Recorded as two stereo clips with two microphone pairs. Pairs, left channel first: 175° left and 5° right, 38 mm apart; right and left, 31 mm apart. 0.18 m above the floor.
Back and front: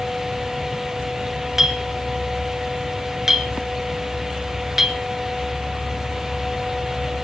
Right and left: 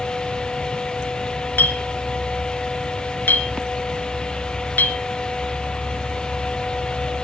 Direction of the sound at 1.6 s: 85° right.